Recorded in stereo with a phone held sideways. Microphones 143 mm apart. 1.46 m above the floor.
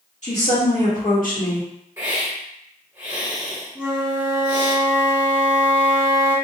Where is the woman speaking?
60° left (ahead or behind), 1.6 m; by 1.7 s 80° left, 1.3 m.